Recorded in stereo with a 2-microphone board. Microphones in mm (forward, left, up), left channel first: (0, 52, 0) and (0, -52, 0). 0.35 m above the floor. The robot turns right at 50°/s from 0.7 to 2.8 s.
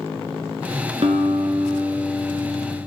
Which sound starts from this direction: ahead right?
A guitar, at 1.0 s.